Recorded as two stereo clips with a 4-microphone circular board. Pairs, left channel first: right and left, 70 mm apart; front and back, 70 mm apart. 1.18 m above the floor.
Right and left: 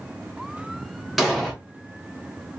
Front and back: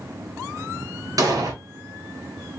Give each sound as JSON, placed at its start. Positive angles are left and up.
{"t": 1.2, "sound": "an explosion", "azimuth_deg": 180, "distance_m": 0.9}